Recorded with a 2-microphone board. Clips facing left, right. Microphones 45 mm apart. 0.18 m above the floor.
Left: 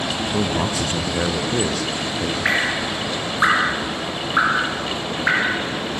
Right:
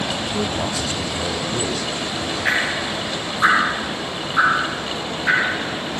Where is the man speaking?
40° left (ahead or behind), 1.9 m; by 2.4 s 65° left (ahead or behind), 3.5 m.